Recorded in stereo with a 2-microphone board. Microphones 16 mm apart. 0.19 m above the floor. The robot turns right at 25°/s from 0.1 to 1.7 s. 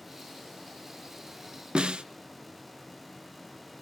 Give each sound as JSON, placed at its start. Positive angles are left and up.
{"t": 1.8, "sound": "a snare drum", "side_deg": -60, "distance_m": 0.5}